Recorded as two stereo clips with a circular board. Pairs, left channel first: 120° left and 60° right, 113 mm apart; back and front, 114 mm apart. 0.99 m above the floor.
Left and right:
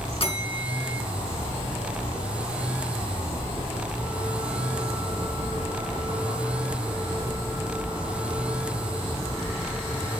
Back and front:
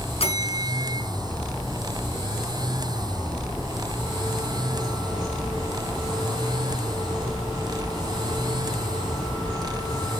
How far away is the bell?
About 3.5 m.